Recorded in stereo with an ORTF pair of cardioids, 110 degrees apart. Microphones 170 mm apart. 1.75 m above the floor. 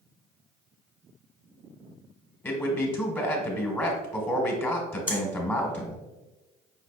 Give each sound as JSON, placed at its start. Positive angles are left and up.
{"t": 2.4, "sound": "a man speaking", "azimuth_deg": 10, "distance_m": 1.3}
{"t": 5.1, "sound": "breathing", "azimuth_deg": 10, "distance_m": 1.4}